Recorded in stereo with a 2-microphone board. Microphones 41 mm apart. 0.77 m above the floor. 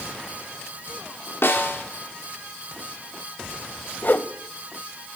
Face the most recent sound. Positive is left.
turn(degrees=50)  # may be behind; listen again after turning